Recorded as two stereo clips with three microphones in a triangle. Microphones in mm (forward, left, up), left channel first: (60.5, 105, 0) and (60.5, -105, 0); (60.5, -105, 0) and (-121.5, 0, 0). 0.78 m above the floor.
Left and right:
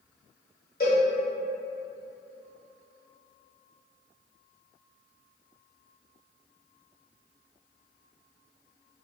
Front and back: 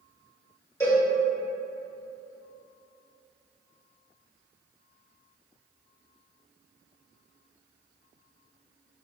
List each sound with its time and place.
0.8 s a cowbell: 45° left, 1.3 m